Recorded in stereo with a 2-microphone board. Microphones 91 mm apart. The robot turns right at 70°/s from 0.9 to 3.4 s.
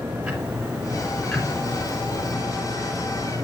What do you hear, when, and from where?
0.2 s ticking: 10° right, 3 m; by 2.3 s 90° left, 3 m